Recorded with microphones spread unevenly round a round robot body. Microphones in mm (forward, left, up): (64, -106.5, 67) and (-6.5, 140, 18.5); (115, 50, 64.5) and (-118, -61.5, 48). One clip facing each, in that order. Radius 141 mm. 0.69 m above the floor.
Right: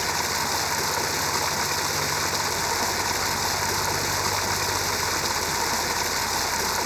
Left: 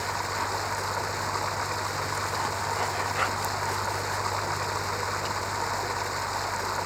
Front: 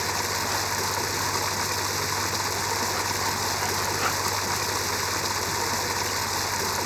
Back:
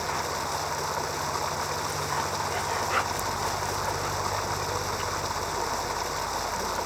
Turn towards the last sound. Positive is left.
turn(degrees=-30)